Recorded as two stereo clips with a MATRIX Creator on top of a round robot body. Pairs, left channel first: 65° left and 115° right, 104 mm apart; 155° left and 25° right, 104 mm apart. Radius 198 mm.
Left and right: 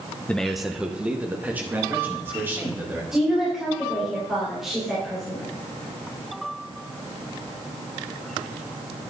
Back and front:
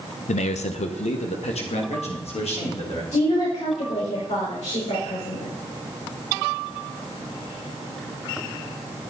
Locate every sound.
0.3 s a man speaking: 145° left, 0.6 m; by 3.0 s straight behind, 3.5 m
3.1 s a woman speaking: 160° left, 4.5 m